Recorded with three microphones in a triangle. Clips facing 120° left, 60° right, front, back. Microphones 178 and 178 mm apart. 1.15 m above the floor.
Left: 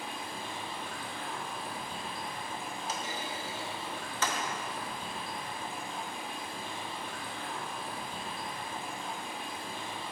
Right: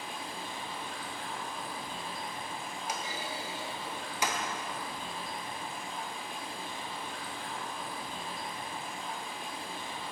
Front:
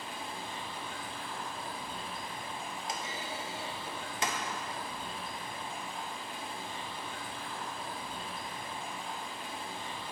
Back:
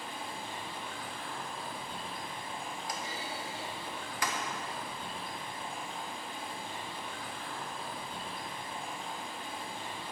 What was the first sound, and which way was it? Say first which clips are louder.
Running water: left 1 dB, even; 145° left.